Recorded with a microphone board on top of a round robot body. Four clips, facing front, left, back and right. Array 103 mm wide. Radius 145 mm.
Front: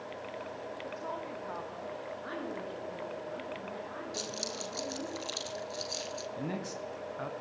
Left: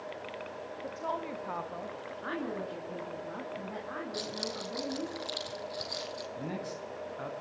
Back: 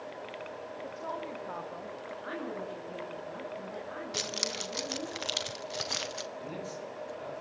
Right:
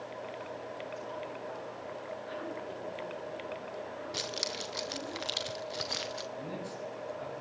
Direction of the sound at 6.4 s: 30° left.